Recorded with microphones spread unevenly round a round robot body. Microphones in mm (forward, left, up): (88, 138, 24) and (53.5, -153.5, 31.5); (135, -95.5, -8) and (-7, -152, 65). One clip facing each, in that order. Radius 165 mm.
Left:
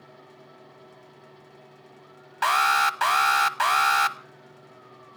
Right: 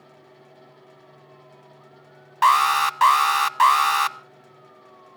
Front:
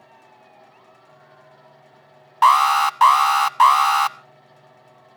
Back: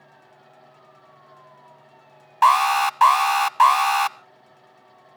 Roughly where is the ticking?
I don't hear ticking.